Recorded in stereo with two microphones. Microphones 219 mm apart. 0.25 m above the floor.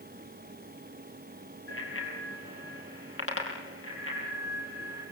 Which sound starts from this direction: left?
A bicycle bell, at 1.7 s.